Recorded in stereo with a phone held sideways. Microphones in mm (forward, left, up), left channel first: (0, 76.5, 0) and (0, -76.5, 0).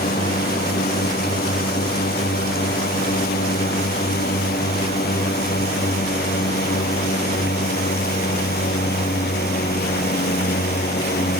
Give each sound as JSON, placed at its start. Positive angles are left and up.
{"t": 0.0, "sound": "a drone", "side_deg": 80}